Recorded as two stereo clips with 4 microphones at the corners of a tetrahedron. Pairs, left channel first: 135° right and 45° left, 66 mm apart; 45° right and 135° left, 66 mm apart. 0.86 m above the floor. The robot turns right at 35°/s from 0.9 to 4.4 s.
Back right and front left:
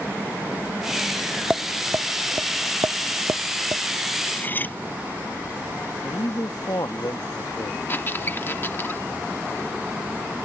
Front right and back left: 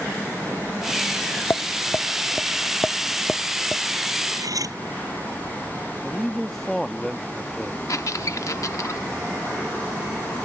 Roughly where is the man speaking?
Behind right.